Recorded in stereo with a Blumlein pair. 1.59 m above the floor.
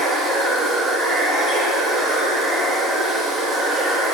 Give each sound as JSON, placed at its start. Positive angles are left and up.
{"t": 0.0, "sound": "running water", "azimuth_deg": -15, "distance_m": 1.1}